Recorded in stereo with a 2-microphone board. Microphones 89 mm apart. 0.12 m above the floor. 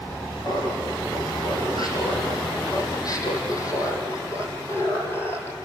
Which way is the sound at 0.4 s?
55° left (ahead or behind).